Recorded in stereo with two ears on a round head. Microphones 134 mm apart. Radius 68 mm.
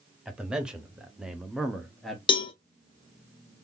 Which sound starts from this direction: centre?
A man speaking, at 0.2 s.